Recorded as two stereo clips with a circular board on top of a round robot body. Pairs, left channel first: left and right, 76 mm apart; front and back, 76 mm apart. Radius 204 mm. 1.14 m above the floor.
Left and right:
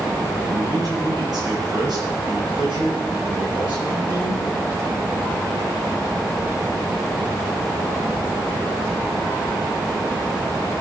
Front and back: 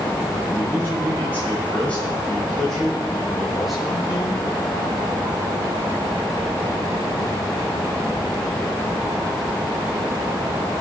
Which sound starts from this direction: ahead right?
A man speaking, at 0.5 s.